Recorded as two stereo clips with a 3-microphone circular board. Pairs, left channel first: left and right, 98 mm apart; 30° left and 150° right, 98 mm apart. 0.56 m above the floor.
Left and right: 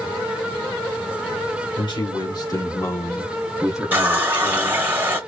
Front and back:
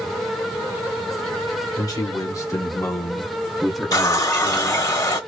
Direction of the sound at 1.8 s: 70° left.